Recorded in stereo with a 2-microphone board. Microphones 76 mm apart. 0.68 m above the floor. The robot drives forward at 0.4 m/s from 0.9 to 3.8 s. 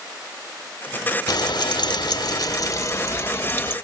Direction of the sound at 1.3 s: 60° left (ahead or behind).